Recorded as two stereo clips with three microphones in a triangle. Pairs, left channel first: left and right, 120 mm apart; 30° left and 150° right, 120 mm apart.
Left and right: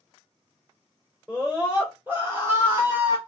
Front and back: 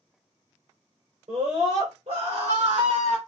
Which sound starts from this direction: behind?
A scream, at 1.3 s.